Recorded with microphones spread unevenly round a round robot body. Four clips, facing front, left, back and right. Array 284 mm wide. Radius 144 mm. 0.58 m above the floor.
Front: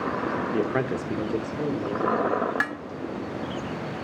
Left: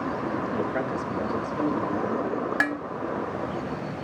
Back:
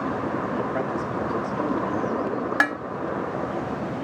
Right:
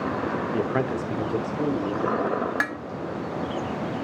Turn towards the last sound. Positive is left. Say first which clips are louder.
# left 2 dB, back 5 dB
turn(degrees=150)